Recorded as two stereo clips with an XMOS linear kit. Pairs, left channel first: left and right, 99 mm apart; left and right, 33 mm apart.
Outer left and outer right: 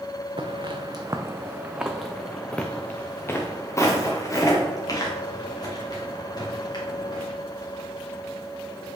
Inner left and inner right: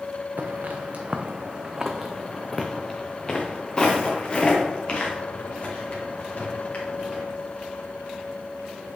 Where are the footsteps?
55° right (ahead or behind), 0.9 m; by 7.2 s 45° left (ahead or behind), 3 m.